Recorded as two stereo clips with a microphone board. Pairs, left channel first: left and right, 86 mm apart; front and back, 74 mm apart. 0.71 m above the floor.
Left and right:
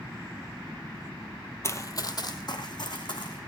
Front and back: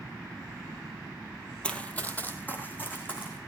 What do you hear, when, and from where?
1.6 s running footsteps: 65° left, 0.8 m